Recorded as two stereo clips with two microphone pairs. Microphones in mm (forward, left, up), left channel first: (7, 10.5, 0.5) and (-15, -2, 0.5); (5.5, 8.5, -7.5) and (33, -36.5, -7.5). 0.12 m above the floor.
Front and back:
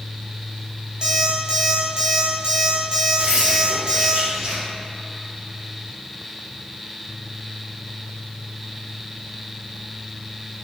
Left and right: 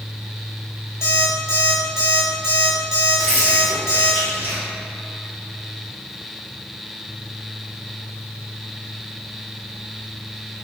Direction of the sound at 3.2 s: Straight behind.